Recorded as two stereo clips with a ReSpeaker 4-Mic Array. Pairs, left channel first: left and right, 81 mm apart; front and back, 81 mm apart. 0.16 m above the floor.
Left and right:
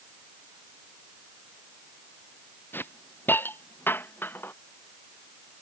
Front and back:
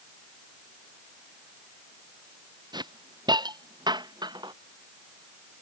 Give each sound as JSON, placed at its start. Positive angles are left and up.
{"t": 2.7, "sound": "a hiss", "azimuth_deg": 155}